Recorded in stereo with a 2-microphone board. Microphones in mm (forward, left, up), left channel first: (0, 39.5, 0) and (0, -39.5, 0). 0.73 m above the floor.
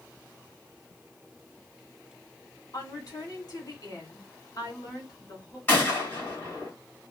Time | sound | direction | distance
2.7 | a woman speaking | 50° left (ahead or behind) | 2.5 m
5.7 | a gunshot | 25° left (ahead or behind) | 2 m